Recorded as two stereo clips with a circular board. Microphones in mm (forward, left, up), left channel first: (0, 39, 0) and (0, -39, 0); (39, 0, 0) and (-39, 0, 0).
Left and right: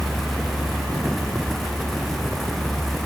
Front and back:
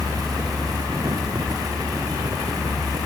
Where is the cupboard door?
No cupboard door in this recording.